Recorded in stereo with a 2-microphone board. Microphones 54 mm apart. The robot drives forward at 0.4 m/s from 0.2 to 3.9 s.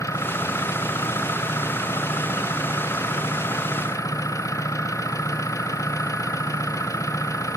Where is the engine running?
80° left; by 7.6 s 85° left.